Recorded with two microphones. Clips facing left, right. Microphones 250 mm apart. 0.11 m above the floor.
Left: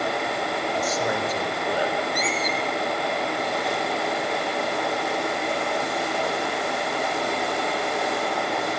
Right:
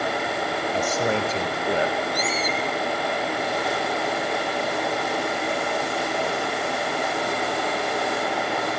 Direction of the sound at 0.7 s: 30° right (ahead or behind).